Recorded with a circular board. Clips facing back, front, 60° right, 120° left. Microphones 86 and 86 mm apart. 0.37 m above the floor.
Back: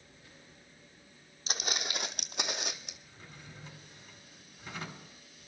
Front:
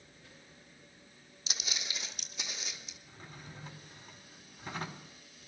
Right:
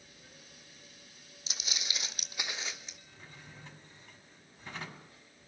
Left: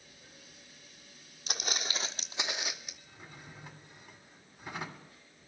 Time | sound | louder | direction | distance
1.5 | footsteps | back 7 dB, left 6 dB | 145° left | 0.8 m
3.1 | a drawer | front 4 dB, left 4 dB | 45° left | 1.6 m